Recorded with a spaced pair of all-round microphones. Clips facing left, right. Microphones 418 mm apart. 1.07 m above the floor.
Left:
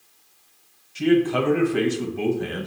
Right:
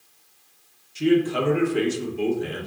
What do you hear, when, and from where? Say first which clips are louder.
0.9 s a man speaking: left 1 dB; 70° left (ahead or behind), 0.9 m